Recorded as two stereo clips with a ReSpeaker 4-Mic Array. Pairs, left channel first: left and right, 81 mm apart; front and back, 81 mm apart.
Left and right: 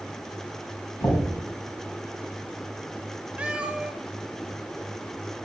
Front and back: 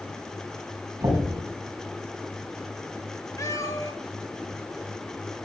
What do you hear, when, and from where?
1.0 s knocking: 140° left, 4.5 m
3.4 s a cat meowing: 20° right, 1.2 m